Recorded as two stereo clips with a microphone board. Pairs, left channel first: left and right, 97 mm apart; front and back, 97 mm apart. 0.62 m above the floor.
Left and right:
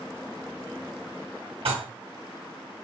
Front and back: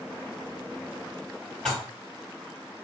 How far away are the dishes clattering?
About 2.5 m.